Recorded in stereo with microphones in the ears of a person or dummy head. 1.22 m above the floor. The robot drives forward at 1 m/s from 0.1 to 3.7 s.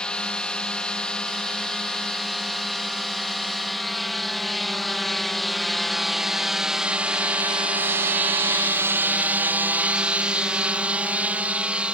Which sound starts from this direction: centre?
A drone, at 0.0 s.